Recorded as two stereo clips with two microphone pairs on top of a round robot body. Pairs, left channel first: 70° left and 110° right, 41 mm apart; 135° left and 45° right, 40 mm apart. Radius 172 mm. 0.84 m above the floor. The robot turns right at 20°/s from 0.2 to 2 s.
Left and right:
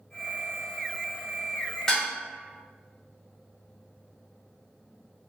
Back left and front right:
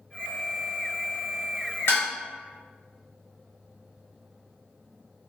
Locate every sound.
1.9 s dishes clattering: 145° left, 1.0 m